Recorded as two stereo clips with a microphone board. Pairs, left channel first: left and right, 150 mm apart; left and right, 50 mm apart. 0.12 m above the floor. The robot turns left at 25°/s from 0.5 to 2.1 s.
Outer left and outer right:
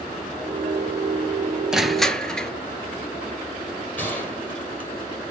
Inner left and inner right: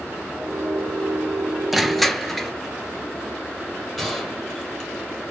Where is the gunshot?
10° left (ahead or behind), 2.5 m.